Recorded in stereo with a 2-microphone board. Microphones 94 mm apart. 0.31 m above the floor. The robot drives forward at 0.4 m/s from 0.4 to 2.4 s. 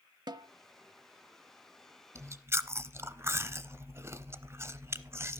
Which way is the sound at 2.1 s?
30° right (ahead or behind).